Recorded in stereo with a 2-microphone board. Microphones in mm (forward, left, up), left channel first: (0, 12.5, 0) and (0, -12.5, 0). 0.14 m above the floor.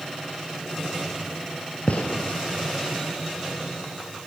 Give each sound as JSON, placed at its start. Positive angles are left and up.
{"t": 1.9, "sound": "a gunshot", "side_deg": 65, "distance_m": 2.5}